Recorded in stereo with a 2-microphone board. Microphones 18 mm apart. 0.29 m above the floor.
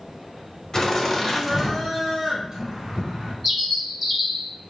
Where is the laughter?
30° left (ahead or behind), 1.0 m; by 3.3 s 45° right (ahead or behind), 1.2 m.